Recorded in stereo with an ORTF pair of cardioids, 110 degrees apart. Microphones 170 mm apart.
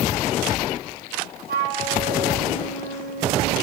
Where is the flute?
65° right, 4.5 m.